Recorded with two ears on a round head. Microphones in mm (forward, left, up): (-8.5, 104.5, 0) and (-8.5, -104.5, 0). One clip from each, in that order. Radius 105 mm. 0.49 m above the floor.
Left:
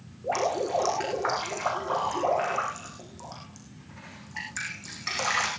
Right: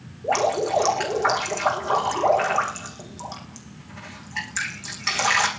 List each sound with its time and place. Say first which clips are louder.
0.2 s dripping: right 5 dB; 20° right (ahead or behind), 5.5 m